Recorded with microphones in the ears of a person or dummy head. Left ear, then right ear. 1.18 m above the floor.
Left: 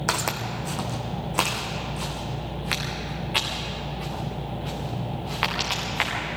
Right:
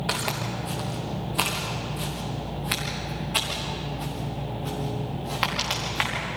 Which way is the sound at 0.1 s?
55° left (ahead or behind).